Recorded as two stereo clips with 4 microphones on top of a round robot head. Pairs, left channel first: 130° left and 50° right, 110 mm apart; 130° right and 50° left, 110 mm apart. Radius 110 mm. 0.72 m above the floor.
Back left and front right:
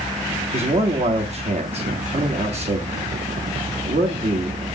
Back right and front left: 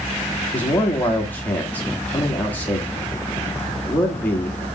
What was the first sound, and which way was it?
A man speaking, 55° right.